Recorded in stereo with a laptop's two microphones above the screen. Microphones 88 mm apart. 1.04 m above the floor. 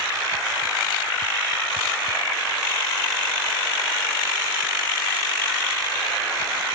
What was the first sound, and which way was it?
Only background noise.